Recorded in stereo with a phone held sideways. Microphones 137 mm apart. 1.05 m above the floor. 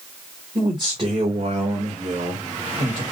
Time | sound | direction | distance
0.6 | a man speaking | 30° right (ahead or behind) | 1.4 m